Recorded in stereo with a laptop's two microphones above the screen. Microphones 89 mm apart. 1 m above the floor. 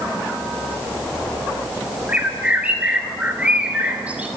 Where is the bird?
15° right (ahead or behind), 3 m.